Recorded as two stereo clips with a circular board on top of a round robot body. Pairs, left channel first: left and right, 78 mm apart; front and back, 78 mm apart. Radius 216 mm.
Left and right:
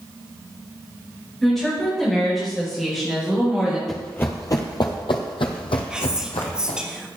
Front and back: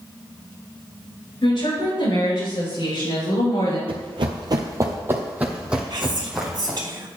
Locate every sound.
1.4 s a woman speaking: 5° left, 5.5 m; by 3.8 s 10° right, 3.5 m
3.9 s running footsteps: 175° left, 0.7 m; by 6.8 s 90° left, 1.9 m
5.9 s whispering: 170° right, 1.6 m